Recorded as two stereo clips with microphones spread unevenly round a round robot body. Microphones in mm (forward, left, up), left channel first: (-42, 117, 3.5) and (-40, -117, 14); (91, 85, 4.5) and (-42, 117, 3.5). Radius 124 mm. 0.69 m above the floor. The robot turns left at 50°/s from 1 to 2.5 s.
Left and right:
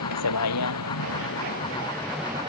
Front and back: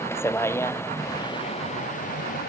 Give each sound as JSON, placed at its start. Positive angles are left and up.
{"t": 0.0, "sound": "a vehicle", "azimuth_deg": 60}